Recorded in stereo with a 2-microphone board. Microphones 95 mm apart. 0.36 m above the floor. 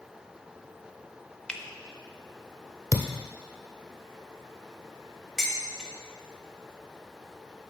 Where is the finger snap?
5° left (ahead or behind), 0.6 m.